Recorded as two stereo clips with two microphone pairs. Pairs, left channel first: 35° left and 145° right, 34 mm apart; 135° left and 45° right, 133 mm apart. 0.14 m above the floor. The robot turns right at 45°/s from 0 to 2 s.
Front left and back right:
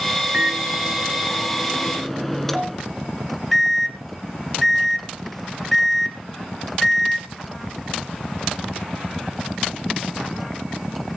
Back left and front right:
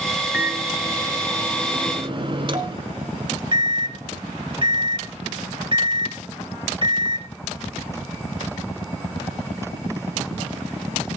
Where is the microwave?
120° right, 1.3 m; by 7.3 s 45° right, 1.3 m.